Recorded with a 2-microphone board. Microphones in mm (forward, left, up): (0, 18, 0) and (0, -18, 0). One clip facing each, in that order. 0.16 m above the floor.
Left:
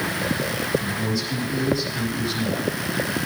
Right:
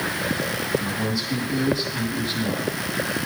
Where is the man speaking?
20° right (ahead or behind), 7 m.